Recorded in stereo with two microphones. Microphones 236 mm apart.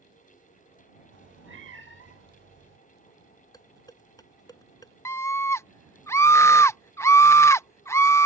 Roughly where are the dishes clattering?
Centre.